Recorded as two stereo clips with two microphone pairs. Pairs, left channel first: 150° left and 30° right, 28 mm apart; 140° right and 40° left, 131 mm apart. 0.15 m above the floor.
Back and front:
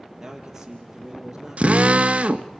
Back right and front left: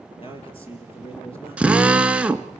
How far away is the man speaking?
About 4 m.